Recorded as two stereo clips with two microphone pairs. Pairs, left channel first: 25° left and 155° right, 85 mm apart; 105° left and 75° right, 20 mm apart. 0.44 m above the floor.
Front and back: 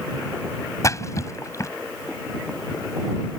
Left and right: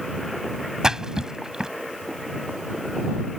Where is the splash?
25° right.